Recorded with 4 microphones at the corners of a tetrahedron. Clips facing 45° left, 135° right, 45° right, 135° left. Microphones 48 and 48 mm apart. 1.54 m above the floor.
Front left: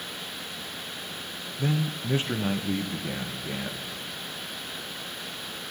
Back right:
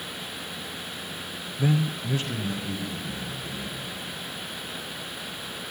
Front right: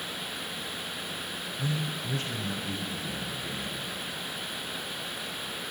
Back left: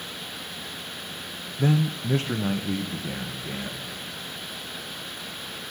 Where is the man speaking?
150° left, 0.8 m; by 3.8 s 75° left, 2.5 m.